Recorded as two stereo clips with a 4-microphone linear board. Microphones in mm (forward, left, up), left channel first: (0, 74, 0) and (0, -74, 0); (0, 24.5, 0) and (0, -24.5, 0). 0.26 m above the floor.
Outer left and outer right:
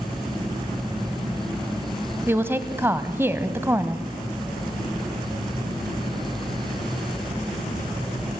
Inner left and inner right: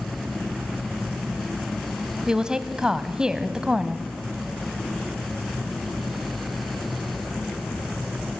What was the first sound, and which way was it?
A woman speaking, 15° right (ahead or behind).